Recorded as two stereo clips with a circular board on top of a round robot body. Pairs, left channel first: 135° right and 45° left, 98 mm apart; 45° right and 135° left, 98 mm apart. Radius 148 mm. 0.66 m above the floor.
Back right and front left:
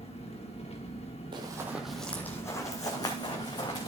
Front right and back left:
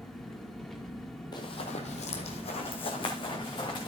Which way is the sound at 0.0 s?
130° right.